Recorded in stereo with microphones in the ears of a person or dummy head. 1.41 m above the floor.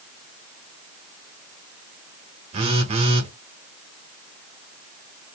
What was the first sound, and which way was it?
A phone buzzing, 25° right (ahead or behind).